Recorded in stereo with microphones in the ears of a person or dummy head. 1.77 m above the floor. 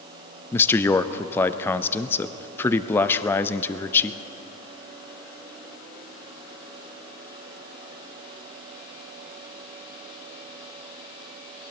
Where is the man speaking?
15° left (ahead or behind), 0.5 m.